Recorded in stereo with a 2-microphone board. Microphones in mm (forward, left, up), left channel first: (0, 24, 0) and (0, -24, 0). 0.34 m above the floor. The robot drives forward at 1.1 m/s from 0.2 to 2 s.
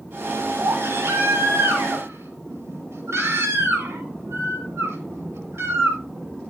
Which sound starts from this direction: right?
A baby crying, at 0.6 s.